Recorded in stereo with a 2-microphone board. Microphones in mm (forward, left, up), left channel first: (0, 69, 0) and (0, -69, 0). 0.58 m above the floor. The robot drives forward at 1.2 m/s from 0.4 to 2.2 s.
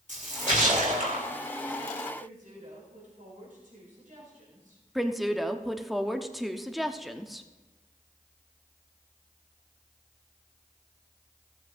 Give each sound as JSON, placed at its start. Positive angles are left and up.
{"t": 0.1, "sound": "a splash", "side_deg": -60, "distance_m": 2.0}
{"t": 2.2, "sound": "a woman speaking", "side_deg": -70, "distance_m": 4.5}
{"t": 5.0, "sound": "a woman speaking", "side_deg": 0, "distance_m": 0.6}